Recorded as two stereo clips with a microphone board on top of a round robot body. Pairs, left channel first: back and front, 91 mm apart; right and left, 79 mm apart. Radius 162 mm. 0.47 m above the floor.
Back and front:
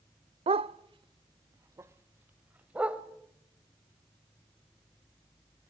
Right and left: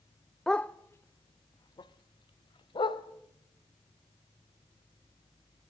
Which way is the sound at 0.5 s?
5° right.